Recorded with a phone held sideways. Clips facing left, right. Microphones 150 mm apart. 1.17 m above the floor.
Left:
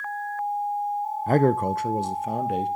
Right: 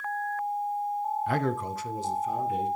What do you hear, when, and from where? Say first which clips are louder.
1.3 s a man speaking: left 13 dB; 40° left (ahead or behind), 0.5 m; by 2.7 s 65° left (ahead or behind), 1.7 m